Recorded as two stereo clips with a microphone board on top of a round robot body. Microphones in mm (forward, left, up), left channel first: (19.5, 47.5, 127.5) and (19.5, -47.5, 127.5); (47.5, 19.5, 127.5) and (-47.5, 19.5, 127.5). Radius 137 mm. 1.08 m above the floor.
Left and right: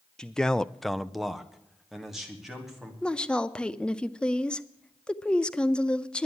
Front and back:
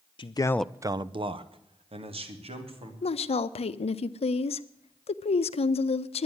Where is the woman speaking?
10° left, 0.6 m.